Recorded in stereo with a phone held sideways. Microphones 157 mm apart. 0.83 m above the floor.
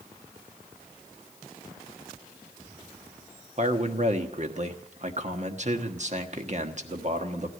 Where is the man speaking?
50° right (ahead or behind), 1.3 m.